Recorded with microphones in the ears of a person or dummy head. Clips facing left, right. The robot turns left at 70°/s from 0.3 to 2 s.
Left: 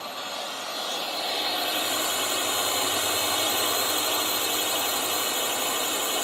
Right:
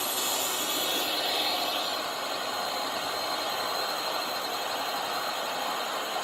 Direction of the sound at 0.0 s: 110° right.